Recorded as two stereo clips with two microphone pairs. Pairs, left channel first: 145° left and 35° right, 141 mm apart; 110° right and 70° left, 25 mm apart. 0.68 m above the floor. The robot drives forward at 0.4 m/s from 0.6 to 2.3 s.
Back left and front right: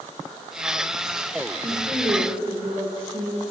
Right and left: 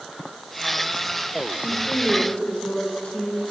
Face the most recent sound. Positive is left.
turn(degrees=-85)